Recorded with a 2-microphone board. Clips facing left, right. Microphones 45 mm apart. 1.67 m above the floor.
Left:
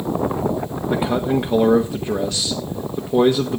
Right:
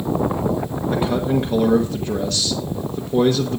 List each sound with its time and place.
0.9 s a man speaking: 10° left (ahead or behind), 1.3 m